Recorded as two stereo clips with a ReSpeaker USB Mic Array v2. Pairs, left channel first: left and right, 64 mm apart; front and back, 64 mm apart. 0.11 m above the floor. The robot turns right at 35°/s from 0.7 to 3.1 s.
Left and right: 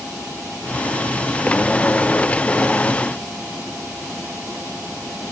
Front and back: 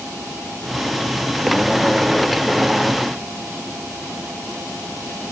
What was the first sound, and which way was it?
Only background noise.